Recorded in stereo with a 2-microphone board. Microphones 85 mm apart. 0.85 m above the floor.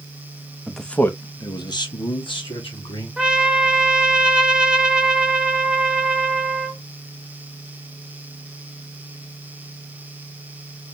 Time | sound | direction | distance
0.7 | a man speaking | 5° right (ahead or behind) | 0.7 m
3.2 | a trumpet | 10° right (ahead or behind) | 0.7 m